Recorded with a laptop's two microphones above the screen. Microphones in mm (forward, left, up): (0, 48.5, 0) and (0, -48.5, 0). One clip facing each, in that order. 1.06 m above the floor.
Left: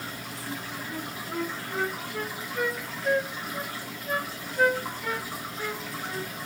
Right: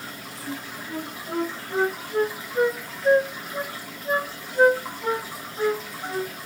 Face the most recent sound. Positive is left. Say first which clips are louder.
# right 3 dB
turn(degrees=-30)  # may be behind; listen again after turning